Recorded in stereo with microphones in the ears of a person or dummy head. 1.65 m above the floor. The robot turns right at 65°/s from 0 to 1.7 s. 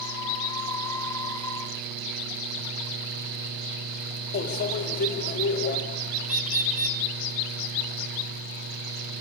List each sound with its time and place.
4.3 s a microwave: 55° left (ahead or behind), 3.5 m
6.2 s a bird: 35° right (ahead or behind), 0.6 m